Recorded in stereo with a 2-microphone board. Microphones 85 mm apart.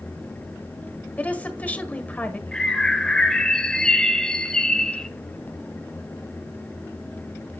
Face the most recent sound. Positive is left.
turn(degrees=10)  # may be behind; listen again after turning